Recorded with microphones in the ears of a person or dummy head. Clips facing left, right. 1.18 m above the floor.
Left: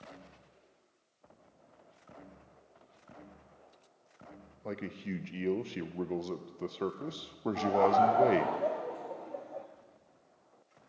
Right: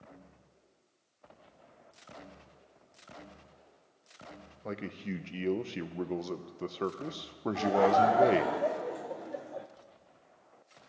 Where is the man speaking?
Centre (ahead or behind), 0.5 m.